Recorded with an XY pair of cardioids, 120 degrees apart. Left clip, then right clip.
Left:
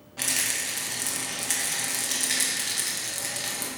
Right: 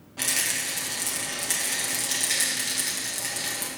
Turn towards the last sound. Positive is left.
turn(degrees=5)